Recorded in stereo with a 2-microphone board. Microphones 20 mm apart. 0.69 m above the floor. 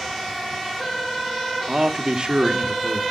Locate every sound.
1.7 s a man speaking: 30° right (ahead or behind), 1.4 m; by 3.0 s 50° right (ahead or behind), 1.4 m